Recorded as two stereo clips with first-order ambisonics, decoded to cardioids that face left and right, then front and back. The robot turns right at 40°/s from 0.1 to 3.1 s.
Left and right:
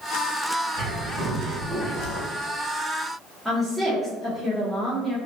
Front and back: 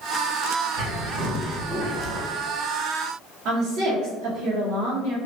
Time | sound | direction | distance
0.8 | a bird | 150° left | 1.9 m
3.5 | a woman speaking | 175° right | 0.7 m